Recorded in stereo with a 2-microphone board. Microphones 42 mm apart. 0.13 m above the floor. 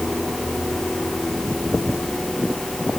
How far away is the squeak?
No squeak in this recording.